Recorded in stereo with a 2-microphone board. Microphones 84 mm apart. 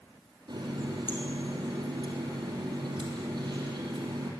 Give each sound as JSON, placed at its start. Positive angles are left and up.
{"t": 0.5, "sound": "a running tap", "side_deg": -55, "distance_m": 3.0}